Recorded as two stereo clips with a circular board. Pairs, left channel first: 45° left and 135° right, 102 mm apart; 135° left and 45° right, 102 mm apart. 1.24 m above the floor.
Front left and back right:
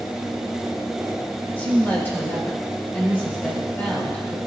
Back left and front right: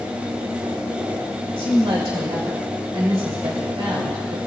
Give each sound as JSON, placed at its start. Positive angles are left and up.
{"t": 1.5, "sound": "a woman speaking", "azimuth_deg": -25, "distance_m": 2.5}